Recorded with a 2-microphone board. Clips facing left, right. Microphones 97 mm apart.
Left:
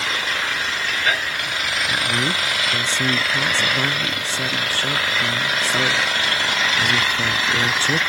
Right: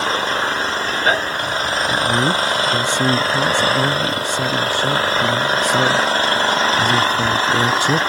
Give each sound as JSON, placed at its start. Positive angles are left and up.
{"t": 0.0, "sound": "an engine running", "side_deg": -35}
{"t": 1.9, "sound": "a man speaking", "side_deg": -15}